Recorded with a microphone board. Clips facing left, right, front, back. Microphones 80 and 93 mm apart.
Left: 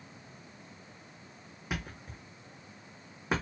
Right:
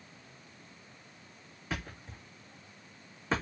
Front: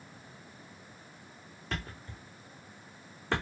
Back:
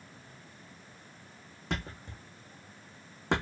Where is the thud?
160° left, 2 m.